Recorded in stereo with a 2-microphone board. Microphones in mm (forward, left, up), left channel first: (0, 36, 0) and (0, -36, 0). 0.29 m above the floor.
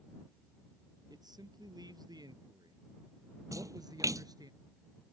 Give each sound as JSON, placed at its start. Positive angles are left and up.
{"t": 1.1, "sound": "a man speaking", "side_deg": -80}
{"t": 3.5, "sound": "a splash", "side_deg": -55}